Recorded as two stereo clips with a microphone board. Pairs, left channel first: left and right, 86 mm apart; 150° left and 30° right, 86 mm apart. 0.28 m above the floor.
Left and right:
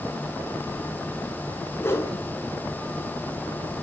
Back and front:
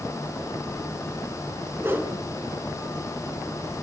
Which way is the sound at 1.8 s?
30° left.